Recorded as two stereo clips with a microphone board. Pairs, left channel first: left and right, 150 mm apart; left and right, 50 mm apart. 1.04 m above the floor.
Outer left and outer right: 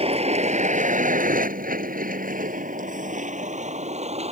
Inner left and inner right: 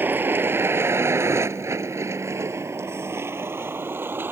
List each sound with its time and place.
0.0 s a vehicle: 45° right (ahead or behind); by 4.3 s 50° right (ahead or behind)